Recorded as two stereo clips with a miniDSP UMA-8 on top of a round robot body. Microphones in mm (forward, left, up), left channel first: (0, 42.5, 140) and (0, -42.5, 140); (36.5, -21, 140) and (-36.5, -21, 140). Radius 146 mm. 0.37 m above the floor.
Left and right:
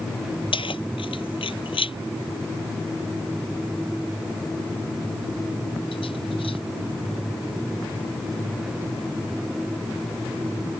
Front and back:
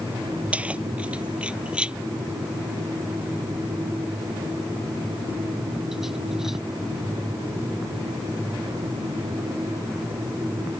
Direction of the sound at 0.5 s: 105° left.